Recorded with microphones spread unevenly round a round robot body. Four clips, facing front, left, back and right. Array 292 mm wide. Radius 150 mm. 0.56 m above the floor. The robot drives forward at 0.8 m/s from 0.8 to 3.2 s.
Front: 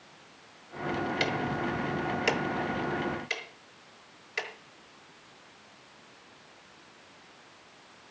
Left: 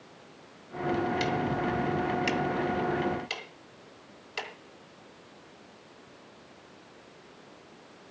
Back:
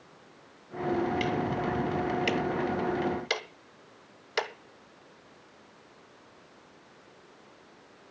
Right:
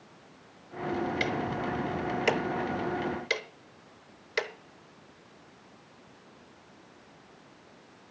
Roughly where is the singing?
I don't hear singing.